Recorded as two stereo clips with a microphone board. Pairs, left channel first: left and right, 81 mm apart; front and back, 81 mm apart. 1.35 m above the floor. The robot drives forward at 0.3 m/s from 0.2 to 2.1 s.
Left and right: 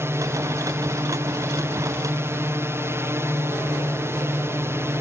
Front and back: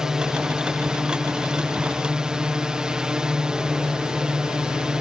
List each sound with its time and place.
0.0 s a drone: 105° right